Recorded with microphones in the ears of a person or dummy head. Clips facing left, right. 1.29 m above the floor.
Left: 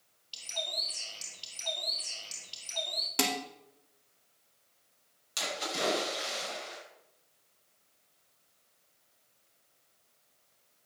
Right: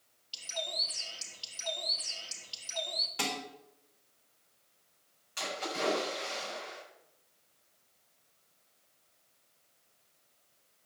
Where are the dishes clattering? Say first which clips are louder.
Left 5 dB; 60° left (ahead or behind), 2.5 m.